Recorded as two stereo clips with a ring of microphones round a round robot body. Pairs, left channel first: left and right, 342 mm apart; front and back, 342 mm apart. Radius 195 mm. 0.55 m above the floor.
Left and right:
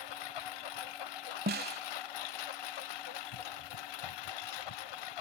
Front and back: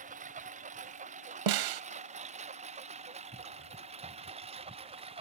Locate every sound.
0.0 s a lawn mower: 110° left; by 5.2 s 105° left
1.5 s a snare drum: 155° right